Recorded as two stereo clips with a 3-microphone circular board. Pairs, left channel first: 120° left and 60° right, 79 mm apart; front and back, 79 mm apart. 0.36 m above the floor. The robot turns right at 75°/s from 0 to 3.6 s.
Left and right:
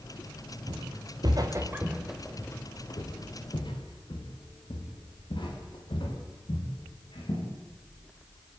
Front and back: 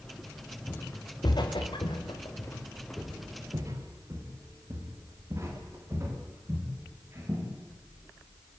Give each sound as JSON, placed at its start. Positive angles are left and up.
{"t": 0.7, "sound": "footsteps", "azimuth_deg": -70, "distance_m": 3.5}